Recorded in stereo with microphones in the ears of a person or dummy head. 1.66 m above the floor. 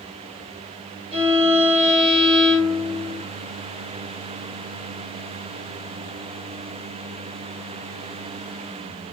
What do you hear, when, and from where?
1.1 s a violin: 75° right (ahead or behind), 1.4 m